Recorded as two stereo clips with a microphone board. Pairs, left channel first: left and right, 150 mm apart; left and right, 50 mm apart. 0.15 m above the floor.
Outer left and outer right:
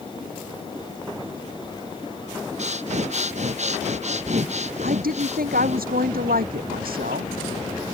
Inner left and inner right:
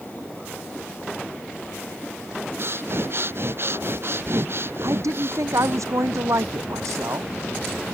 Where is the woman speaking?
80° right.